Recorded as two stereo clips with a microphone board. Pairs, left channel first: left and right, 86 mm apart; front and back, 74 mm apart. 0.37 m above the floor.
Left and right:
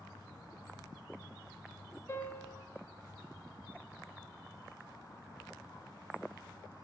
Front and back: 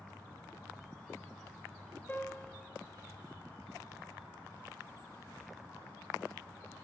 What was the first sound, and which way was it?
A piano, 55° left.